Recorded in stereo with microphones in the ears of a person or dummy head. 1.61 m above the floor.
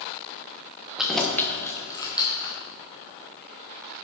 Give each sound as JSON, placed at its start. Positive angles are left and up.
{"t": 1.0, "sound": "keys jangling", "side_deg": 0, "distance_m": 0.7}